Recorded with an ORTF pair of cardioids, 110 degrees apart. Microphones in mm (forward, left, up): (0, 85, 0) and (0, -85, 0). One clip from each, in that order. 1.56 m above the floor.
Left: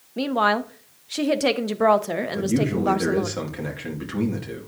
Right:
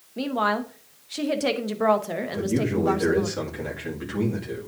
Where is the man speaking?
20° left, 2 m.